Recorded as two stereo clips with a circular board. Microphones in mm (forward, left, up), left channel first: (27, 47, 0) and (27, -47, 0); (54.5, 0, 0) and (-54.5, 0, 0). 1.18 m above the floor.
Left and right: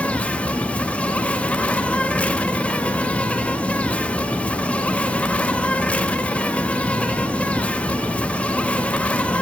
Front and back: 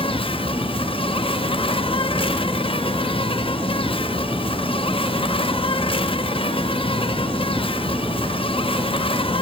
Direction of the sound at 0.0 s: 15° left.